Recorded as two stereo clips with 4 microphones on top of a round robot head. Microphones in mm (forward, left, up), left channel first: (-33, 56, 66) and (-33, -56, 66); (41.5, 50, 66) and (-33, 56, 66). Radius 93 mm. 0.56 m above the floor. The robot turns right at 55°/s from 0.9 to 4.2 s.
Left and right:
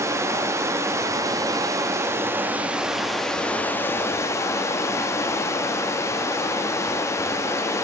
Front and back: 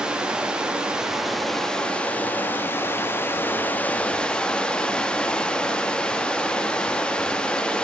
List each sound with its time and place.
0.0 s running water: 120° right, 0.7 m; by 7.8 s 60° left, 0.7 m